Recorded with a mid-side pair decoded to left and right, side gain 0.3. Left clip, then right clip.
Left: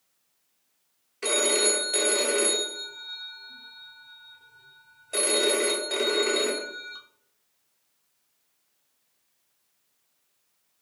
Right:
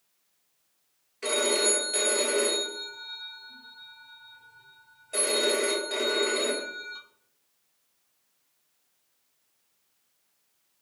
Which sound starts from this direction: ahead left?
A phone ringing, at 1.2 s.